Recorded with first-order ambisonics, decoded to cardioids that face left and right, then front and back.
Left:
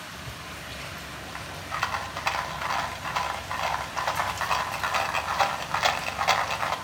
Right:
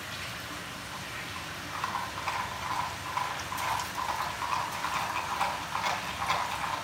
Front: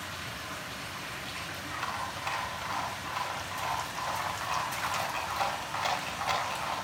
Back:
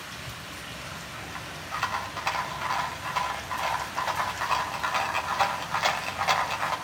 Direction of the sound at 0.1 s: 110° left.